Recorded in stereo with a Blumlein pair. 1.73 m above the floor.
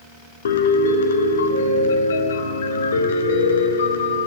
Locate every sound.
0.5 s a piano: 65° left, 0.6 m